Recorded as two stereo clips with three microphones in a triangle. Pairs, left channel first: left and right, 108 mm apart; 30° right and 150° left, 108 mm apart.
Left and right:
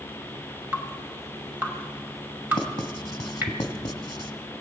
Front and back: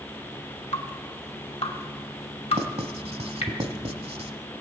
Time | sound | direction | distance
0.7 | dripping | 20° right | 2.5 m
2.5 | writing | 135° left | 1.1 m